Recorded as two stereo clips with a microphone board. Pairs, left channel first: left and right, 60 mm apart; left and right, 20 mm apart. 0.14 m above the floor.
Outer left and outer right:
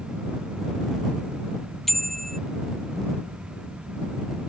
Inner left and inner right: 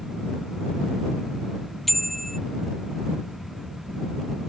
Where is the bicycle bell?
5° left (ahead or behind).